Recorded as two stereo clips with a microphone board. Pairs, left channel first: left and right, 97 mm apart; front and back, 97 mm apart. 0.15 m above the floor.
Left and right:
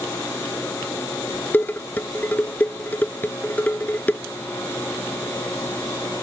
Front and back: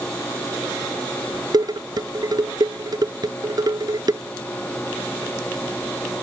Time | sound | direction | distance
1.5 | dishes clattering | 155° left | ?